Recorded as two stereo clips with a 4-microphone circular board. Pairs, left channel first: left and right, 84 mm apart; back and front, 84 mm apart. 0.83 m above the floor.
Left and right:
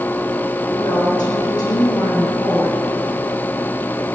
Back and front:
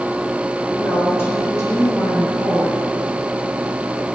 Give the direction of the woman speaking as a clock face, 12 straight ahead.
8 o'clock.